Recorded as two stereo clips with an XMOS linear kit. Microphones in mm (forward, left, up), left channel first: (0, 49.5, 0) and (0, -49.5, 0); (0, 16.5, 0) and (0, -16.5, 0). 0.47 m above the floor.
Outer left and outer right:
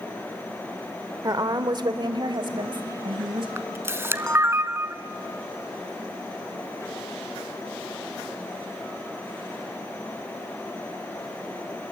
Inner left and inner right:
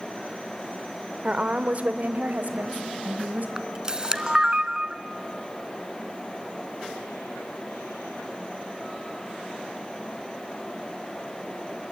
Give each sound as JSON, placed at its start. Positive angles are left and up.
{"t": 1.2, "sound": "a woman speaking", "side_deg": -40, "distance_m": 1.2}
{"t": 3.6, "sound": "a camera shutter", "side_deg": -25, "distance_m": 0.8}